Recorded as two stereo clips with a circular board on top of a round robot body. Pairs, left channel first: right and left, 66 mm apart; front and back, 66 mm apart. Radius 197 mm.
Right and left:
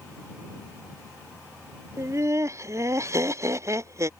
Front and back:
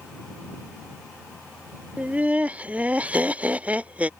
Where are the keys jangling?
No keys jangling in this recording.